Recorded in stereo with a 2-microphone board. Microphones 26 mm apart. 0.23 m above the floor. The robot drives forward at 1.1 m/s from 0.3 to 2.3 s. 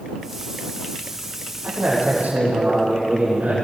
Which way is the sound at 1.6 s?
75° right (ahead or behind).